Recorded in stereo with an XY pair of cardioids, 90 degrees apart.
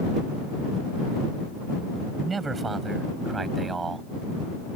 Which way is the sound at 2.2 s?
40° right.